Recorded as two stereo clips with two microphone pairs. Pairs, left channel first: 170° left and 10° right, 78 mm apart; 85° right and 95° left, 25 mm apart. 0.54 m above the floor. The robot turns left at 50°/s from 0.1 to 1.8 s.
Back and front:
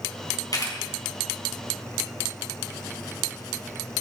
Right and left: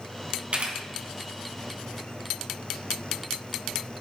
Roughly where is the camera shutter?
Behind left.